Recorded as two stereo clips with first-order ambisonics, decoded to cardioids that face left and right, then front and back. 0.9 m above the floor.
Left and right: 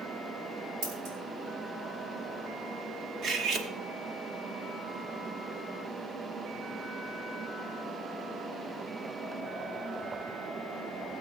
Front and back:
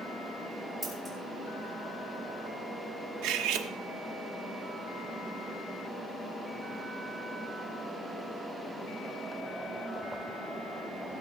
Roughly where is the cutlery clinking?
Behind right.